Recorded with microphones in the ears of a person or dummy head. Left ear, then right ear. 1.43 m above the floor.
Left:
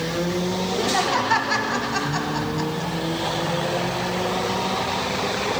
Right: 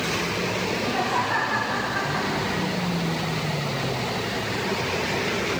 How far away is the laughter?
About 1.9 m.